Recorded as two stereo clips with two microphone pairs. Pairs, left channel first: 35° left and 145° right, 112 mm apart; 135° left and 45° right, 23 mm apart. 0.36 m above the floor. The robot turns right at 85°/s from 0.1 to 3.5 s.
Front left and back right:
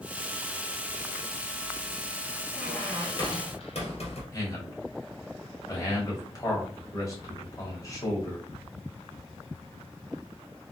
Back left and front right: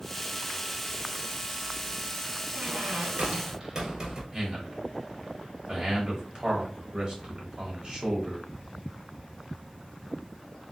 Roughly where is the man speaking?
Ahead.